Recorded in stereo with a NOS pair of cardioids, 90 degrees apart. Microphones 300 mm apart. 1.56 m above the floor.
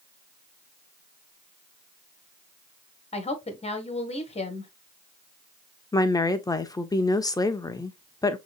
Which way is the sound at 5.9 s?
10° left.